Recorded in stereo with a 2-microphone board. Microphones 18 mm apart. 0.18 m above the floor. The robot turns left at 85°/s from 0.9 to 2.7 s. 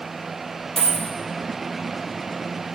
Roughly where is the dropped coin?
Left.